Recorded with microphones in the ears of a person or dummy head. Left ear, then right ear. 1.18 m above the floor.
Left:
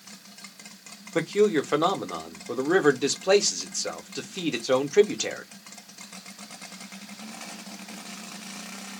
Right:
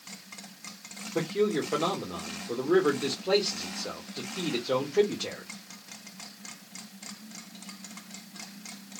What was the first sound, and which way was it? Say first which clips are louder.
A man speaking: left 5 dB; 60° left (ahead or behind).